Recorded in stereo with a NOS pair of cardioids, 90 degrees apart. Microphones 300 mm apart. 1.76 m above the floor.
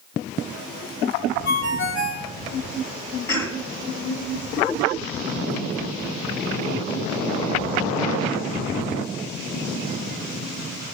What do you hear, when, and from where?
1.4 s a ringtone: 45° left, 3 m
3.3 s a cough: 5° left, 3 m